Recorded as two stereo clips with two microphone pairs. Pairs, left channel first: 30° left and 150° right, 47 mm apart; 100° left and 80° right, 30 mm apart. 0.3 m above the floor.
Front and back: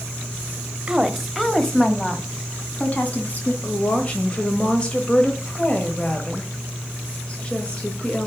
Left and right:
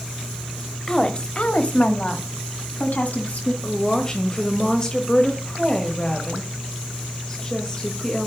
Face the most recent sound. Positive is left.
turn(degrees=70)